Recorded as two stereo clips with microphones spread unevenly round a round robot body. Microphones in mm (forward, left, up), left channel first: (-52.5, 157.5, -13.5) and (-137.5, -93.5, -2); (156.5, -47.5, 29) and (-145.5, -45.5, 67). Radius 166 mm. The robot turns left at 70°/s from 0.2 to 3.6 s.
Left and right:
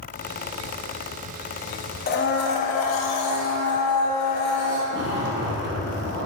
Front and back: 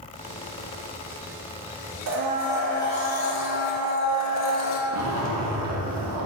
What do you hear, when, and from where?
2.1 s a blender: 130° left, 0.5 m; by 4.8 s 25° left, 0.5 m
4.9 s a zipper: 150° right, 0.8 m